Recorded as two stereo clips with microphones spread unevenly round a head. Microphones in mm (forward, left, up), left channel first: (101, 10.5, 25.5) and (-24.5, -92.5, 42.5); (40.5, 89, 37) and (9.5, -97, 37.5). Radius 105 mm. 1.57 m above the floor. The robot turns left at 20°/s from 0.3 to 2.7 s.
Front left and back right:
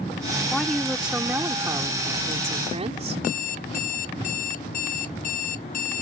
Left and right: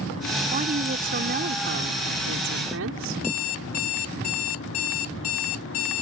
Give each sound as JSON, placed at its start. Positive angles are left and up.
{"t": 0.5, "sound": "a woman speaking", "azimuth_deg": -45}
{"t": 3.2, "sound": "an alarm clock", "azimuth_deg": 95}